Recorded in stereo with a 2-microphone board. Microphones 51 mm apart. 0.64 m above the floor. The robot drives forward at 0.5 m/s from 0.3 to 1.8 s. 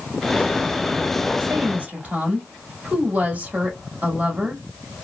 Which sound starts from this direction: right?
A woman speaking, at 1.4 s.